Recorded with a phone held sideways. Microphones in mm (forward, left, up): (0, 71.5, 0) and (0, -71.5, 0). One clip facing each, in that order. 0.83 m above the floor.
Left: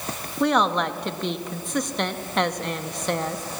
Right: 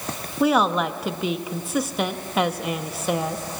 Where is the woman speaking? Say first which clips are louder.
Right 2 dB; 5° right (ahead or behind), 0.7 m.